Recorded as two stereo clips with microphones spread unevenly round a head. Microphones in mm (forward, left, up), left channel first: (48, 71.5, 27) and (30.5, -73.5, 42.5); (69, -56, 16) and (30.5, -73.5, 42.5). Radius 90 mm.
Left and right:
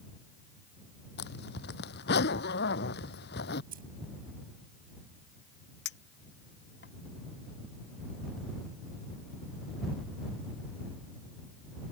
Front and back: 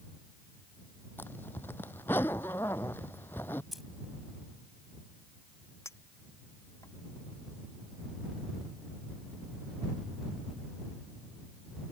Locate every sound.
1.2 s a zipper: 90° left
3.7 s keys jangling: 75° right
5.8 s a clink: 100° left